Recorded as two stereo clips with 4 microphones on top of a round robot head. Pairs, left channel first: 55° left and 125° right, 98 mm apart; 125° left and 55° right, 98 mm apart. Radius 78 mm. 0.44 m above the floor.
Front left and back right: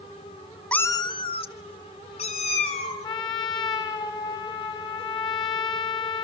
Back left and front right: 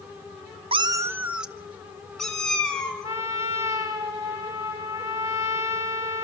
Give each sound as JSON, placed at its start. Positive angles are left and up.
{"t": 0.7, "sound": "a cat meowing", "azimuth_deg": -25, "distance_m": 0.5}
{"t": 3.0, "sound": "a trumpet", "azimuth_deg": 5, "distance_m": 2.0}